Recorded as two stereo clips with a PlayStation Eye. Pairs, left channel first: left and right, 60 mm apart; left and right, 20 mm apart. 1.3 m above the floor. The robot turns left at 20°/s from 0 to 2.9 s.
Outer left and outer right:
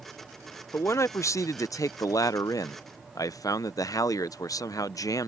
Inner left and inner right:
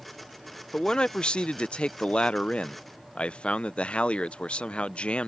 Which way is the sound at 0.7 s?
130° left.